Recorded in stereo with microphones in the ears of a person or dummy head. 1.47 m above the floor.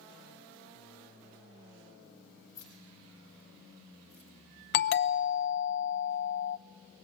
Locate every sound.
2.5 s keys jangling: 15° left (ahead or behind), 5 m; by 4.3 s 15° right (ahead or behind), 4.5 m
4.7 s a doorbell: 50° left (ahead or behind), 0.8 m